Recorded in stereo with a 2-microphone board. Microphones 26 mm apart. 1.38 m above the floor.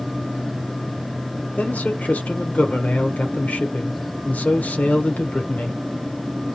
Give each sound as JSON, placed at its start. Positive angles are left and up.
{"t": 1.6, "sound": "a man speaking", "side_deg": 85, "distance_m": 0.9}